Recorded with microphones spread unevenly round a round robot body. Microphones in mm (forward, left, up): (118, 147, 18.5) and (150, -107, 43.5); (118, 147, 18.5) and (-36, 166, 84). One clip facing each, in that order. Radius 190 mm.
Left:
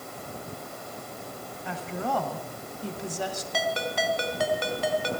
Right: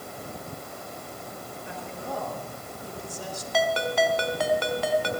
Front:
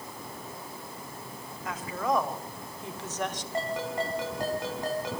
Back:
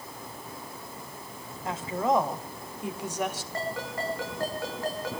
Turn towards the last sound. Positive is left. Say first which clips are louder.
# right 6 dB, front 6 dB
turn(degrees=-80)